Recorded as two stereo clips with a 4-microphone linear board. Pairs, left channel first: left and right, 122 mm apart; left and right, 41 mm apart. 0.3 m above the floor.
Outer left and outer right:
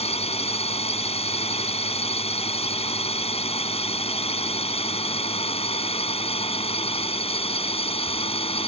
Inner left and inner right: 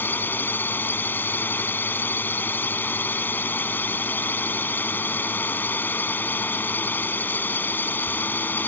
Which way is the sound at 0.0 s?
60° left (ahead or behind).